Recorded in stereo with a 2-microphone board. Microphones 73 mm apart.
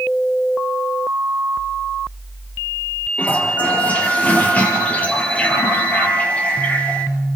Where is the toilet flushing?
20° left (ahead or behind), 5 m.